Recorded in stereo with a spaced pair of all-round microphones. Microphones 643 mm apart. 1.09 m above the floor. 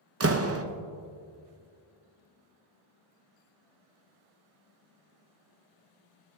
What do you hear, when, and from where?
0.2 s a door slam: 25° right (ahead or behind), 0.5 m